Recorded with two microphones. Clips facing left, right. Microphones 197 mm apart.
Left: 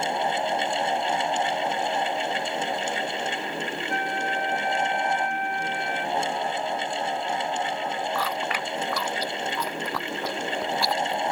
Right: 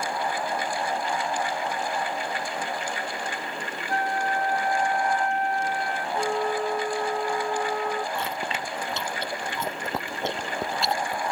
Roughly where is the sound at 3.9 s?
Right.